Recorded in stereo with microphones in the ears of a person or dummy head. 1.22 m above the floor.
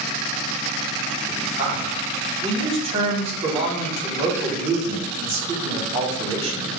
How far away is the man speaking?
About 1.2 m.